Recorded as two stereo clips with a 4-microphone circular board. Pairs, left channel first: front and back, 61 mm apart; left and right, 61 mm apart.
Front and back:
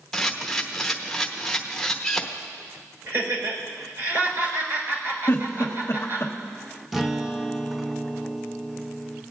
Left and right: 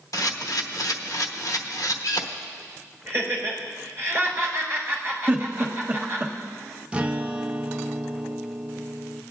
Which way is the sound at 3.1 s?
145° right.